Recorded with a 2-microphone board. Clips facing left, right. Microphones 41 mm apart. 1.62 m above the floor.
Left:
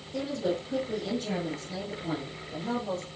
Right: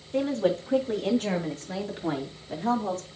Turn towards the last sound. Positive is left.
turn(degrees=-75)  # may be behind; listen again after turning